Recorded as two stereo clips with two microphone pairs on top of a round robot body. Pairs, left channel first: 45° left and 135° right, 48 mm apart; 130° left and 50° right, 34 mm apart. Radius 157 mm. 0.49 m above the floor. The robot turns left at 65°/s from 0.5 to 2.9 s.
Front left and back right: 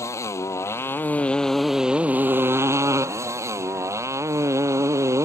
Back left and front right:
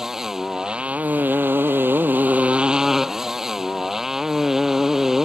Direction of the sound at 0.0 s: 30° left.